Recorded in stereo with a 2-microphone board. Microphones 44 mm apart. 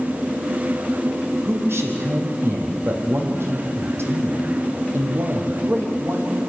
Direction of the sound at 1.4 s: 65° right (ahead or behind).